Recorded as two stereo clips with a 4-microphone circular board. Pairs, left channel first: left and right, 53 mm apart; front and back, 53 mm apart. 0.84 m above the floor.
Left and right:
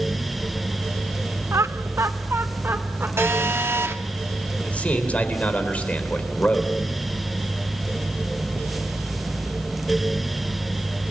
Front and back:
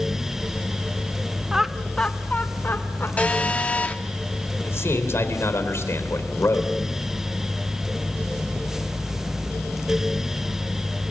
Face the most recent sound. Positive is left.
turn(degrees=30)